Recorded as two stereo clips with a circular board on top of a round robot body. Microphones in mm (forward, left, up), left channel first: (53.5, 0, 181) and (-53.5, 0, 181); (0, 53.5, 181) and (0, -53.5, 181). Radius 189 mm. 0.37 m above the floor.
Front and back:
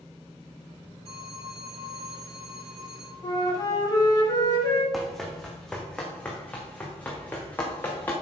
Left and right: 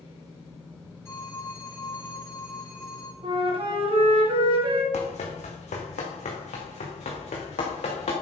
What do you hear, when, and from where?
1.1 s a phone ringing: 155° left, 6 m
3.2 s a flute: 55° right, 3 m
4.9 s running footsteps: 90° left, 2 m; by 8.1 s 75° left, 3.5 m